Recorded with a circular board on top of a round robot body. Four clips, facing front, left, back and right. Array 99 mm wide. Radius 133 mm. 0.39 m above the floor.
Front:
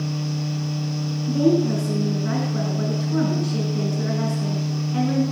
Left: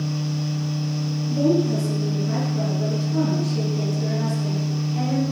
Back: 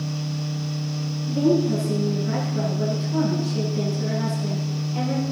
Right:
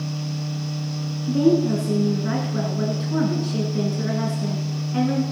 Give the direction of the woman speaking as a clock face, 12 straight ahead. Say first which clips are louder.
Right 2 dB, front 1 dB; 2 o'clock.